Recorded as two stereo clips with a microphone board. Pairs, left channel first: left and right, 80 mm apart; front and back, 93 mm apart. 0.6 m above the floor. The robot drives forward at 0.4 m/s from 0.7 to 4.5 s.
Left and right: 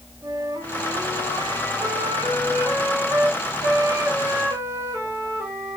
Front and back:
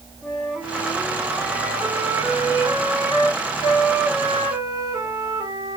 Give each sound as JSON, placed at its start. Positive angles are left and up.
{"t": 0.2, "sound": "a flute", "azimuth_deg": -85, "distance_m": 1.8}